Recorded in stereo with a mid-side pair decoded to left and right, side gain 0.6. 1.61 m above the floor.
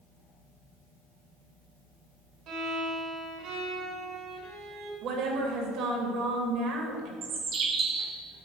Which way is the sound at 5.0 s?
70° right.